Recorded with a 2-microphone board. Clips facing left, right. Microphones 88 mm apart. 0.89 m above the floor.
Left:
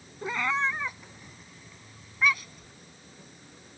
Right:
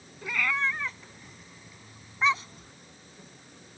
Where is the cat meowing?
30° left (ahead or behind); by 2.7 s 35° right (ahead or behind).